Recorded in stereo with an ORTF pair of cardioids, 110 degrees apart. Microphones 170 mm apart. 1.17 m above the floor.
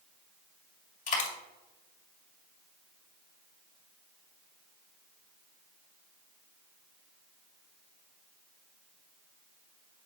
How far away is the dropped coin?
About 2.5 m.